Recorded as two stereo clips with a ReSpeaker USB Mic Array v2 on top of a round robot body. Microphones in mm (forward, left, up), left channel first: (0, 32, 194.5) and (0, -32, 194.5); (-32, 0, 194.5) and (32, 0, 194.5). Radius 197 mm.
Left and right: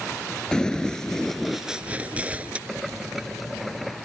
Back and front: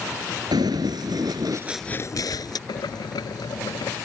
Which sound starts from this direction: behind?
Boiling, at 2.7 s.